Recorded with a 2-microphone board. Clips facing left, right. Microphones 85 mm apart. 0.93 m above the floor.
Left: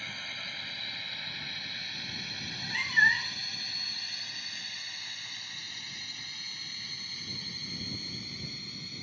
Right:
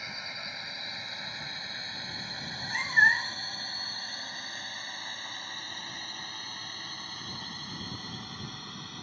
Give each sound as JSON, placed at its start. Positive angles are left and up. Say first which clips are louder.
{"t": 0.0, "sound": "a drone", "louder": "right 1 dB", "side_deg": -15}
{"t": 2.4, "sound": "a cat meowing", "louder": "right 2 dB", "side_deg": -20}